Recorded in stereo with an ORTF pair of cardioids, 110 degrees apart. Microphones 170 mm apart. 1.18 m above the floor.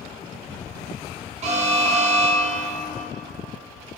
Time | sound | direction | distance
1.4 | an alarm | 40° right | 1.0 m